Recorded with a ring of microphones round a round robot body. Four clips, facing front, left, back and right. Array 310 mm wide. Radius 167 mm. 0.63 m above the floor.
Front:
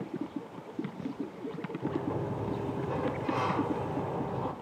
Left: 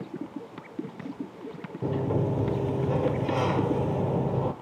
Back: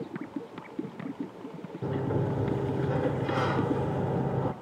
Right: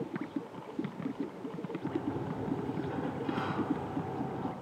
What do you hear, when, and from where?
1.8 s a sliding door: 120° left, 0.7 m